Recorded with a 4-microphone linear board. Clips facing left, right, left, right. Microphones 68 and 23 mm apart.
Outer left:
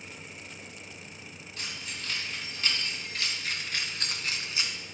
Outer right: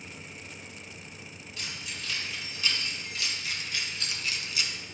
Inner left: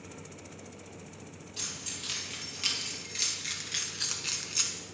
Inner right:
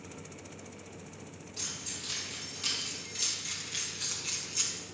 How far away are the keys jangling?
About 3.5 m.